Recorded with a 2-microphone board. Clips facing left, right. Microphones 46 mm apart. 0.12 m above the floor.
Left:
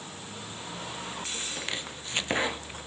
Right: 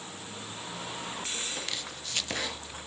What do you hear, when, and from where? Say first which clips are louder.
1.6 s chopping: left 2 dB; 25° left (ahead or behind)